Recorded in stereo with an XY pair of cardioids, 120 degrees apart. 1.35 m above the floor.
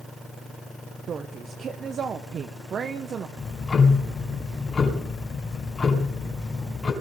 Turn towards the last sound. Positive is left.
turn(degrees=30)